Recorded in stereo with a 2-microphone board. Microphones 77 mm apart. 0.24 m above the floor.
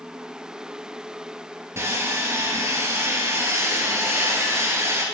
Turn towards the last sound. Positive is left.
turn(degrees=-35)  # may be behind; listen again after turning